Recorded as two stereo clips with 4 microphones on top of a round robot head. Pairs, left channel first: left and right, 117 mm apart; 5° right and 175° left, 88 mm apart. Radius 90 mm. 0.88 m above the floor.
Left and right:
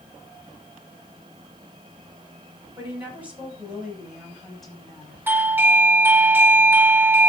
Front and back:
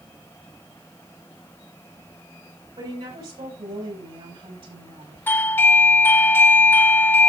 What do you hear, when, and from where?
2.8 s a woman speaking: 165° right, 6.5 m; by 5.2 s 175° left, 6.5 m
5.3 s a doorbell: 35° right, 0.8 m